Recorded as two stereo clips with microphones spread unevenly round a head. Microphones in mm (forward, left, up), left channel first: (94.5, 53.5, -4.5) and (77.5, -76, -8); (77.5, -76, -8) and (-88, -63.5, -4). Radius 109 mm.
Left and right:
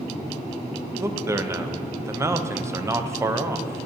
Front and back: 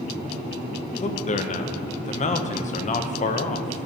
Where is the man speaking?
30° right, 0.6 m.